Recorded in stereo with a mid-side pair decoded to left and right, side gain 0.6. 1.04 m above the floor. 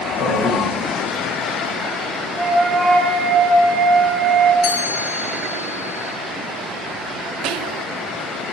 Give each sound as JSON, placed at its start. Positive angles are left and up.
{"t": 0.2, "sound": "a man speaking", "azimuth_deg": 45, "distance_m": 3.0}
{"t": 2.4, "sound": "a flute", "azimuth_deg": -5, "distance_m": 1.7}
{"t": 4.6, "sound": "a chime", "azimuth_deg": 65, "distance_m": 3.0}
{"t": 7.4, "sound": "whispering", "azimuth_deg": -65, "distance_m": 0.6}